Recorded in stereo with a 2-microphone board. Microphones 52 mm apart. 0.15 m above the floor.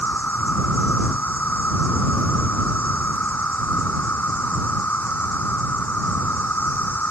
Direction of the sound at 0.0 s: 40° left (ahead or behind).